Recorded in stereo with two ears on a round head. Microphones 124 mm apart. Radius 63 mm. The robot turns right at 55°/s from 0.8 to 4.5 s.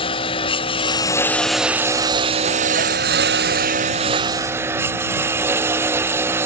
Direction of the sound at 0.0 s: 140° left.